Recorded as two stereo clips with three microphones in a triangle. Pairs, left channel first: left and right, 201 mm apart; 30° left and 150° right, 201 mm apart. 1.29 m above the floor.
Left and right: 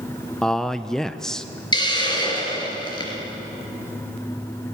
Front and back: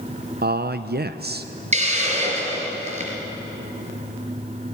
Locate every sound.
0.4 s a man speaking: 175° left, 0.6 m
1.7 s a hiss: 155° left, 3.5 m